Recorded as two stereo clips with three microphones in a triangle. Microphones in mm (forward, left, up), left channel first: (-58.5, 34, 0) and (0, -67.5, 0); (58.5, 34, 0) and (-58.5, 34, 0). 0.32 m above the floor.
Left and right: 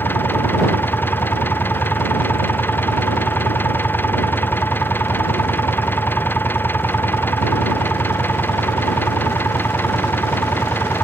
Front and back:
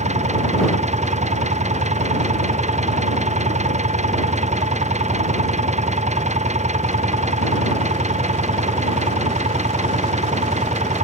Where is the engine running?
165° right.